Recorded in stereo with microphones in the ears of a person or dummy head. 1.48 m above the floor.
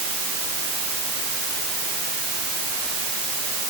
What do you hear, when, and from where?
Only background noise.